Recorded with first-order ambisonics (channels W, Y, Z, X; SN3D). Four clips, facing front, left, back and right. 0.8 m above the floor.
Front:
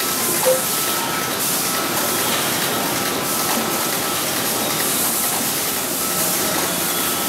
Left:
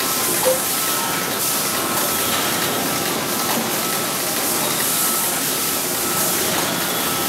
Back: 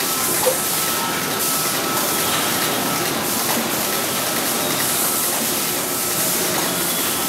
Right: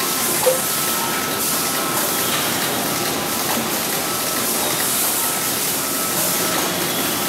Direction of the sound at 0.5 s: 60° left.